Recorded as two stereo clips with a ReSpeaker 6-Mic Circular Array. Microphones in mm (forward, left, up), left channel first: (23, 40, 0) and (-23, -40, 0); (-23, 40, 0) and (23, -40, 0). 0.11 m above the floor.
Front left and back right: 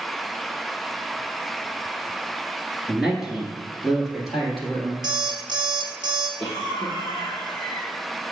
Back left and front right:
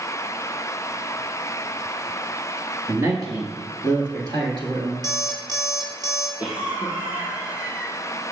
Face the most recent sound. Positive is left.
turn(degrees=-15)